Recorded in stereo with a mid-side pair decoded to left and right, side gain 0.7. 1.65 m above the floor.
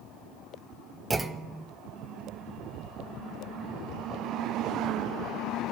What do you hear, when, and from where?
1.1 s a clunk: 15° right, 0.8 m